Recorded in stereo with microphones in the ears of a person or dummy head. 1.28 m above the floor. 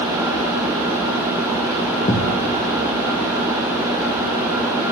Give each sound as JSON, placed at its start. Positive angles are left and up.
{"t": 2.1, "sound": "a thud", "side_deg": 30, "distance_m": 0.8}